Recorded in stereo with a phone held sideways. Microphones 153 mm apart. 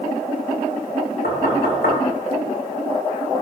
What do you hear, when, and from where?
1.2 s knocking: 85° left, 3 m